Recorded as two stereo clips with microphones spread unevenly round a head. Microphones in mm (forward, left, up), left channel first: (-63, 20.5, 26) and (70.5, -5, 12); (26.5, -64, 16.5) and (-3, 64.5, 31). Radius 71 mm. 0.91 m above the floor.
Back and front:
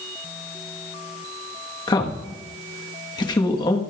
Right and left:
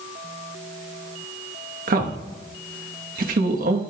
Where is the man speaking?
110° left, 1.2 m.